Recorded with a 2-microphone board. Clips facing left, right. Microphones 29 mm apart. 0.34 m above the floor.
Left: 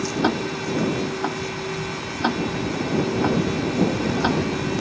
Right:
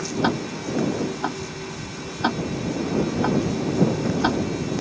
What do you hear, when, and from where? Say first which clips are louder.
0.2 s ticking: left 1 dB; 5° right (ahead or behind)